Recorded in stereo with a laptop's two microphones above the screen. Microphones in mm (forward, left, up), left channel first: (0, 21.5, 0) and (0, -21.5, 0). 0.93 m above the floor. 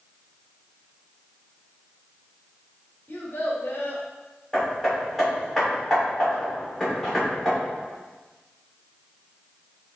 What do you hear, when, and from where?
3.1 s a child speaking: 65° left (ahead or behind), 1.6 m
4.5 s hammering: 5° left (ahead or behind), 2.5 m